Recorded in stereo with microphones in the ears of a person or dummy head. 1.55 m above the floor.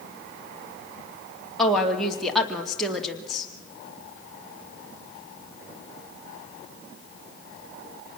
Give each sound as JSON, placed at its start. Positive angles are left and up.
{"t": 1.6, "sound": "a woman speaking", "side_deg": 0, "distance_m": 2.5}